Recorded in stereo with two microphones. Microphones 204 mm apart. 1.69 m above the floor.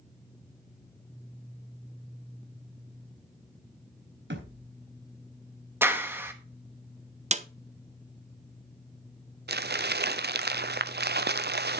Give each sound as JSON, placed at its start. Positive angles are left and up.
{"t": 4.3, "sound": "a thud", "side_deg": -65, "distance_m": 4.0}
{"t": 5.8, "sound": "a clap", "side_deg": -10, "distance_m": 1.5}
{"t": 7.3, "sound": "a snare drum", "side_deg": -35, "distance_m": 0.7}
{"t": 9.5, "sound": "crumpling", "side_deg": -55, "distance_m": 0.6}